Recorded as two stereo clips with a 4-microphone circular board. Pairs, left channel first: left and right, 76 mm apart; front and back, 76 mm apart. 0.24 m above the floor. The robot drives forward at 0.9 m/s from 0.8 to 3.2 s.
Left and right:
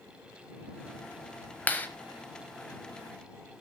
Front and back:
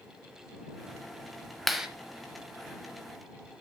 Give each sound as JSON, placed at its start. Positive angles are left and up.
{"t": 1.7, "sound": "a clap", "azimuth_deg": 90, "distance_m": 1.1}